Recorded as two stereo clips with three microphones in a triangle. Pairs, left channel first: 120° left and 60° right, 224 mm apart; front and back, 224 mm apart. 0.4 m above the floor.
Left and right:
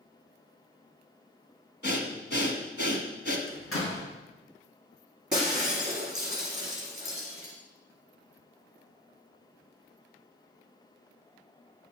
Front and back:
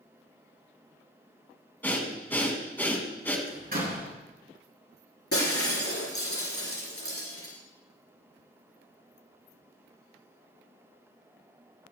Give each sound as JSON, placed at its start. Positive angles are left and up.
{"t": 1.8, "sound": "breathing", "azimuth_deg": 85, "distance_m": 1.3}
{"t": 3.5, "sound": "a door slam", "azimuth_deg": 135, "distance_m": 3.0}
{"t": 5.3, "sound": "breaking glass", "azimuth_deg": -5, "distance_m": 4.0}